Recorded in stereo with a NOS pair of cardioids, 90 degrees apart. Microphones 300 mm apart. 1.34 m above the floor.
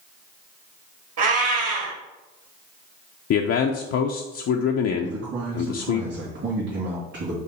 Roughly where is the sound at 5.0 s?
Ahead right.